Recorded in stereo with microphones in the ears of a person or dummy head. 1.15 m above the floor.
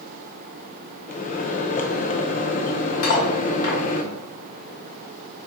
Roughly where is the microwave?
Left.